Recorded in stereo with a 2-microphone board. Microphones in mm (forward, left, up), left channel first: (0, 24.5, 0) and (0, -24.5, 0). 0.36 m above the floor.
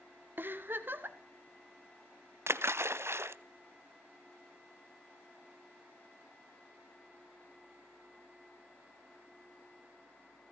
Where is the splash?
65° right (ahead or behind), 0.7 m.